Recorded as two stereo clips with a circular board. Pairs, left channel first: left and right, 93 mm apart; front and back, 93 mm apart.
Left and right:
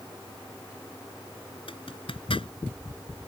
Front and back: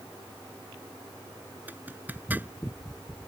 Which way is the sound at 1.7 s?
110° left.